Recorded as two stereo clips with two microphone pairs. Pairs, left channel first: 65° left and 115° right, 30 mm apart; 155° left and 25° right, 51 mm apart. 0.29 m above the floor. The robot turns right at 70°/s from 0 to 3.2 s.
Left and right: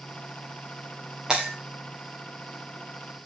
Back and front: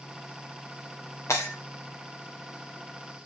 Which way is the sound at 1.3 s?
170° left.